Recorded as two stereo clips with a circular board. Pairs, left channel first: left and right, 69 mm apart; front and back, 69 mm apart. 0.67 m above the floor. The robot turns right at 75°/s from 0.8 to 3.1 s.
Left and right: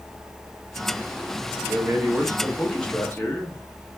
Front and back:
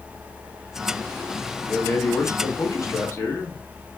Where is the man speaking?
70° right, 0.9 m; by 3.6 s 40° left, 0.9 m.